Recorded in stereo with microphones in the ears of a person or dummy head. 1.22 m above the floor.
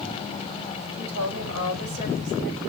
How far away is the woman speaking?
About 5 m.